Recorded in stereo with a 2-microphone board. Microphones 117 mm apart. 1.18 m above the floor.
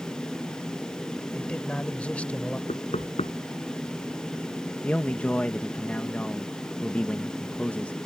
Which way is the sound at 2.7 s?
80° left.